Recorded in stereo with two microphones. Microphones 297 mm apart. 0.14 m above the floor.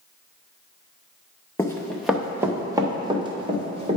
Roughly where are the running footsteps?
Centre.